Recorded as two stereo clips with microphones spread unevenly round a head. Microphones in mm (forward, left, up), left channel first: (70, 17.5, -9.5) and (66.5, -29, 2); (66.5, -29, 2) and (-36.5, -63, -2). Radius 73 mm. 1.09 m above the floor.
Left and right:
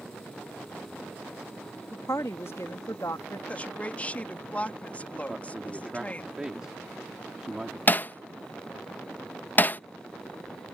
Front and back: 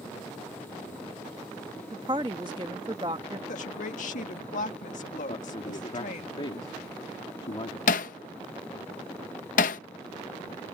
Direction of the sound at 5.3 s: 20° right.